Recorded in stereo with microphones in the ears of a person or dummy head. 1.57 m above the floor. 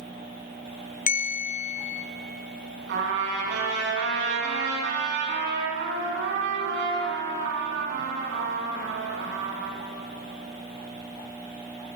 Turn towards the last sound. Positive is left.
turn(degrees=-65)  # may be behind; listen again after turning